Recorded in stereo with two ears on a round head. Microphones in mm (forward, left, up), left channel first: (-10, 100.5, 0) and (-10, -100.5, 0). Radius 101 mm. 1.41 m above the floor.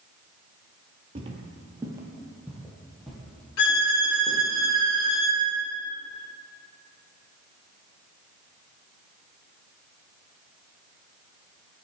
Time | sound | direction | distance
1.1 | footsteps | 25° right (ahead or behind) | 1.5 m
3.6 | a violin | 70° left (ahead or behind) | 3 m